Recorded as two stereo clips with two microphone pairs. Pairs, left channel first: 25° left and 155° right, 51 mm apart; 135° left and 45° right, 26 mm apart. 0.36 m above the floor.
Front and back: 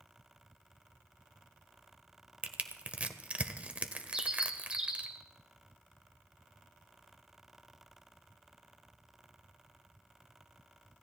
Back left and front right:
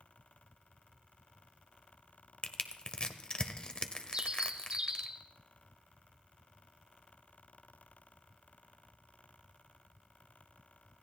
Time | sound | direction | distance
2.4 | crushing | 165° left | 1.0 m
4.1 | a bird | 80° right | 1.5 m